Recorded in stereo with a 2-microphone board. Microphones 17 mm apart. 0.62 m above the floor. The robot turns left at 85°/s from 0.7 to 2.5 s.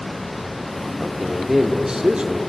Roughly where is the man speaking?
Ahead.